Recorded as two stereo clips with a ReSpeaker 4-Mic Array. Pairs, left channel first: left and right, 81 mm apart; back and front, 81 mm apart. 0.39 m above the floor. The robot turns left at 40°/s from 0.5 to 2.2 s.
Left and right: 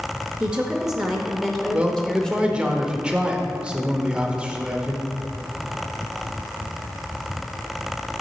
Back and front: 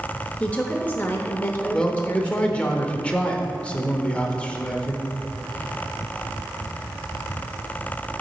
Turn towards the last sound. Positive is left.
turn(degrees=-140)